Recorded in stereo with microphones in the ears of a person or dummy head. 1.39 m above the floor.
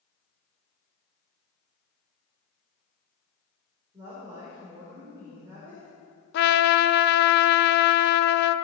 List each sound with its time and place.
3.9 s a woman speaking: 25° right (ahead or behind), 4 m
6.3 s a trumpet: 50° left (ahead or behind), 0.6 m